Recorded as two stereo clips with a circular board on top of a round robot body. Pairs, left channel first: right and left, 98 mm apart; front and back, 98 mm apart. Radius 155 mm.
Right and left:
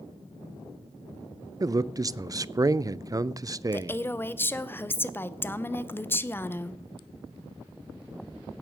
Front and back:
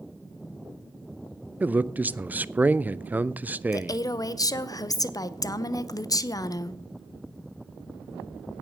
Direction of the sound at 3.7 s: 30° right.